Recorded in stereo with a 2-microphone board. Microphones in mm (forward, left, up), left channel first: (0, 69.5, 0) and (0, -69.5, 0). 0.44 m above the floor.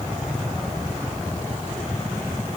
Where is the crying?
No crying in this recording.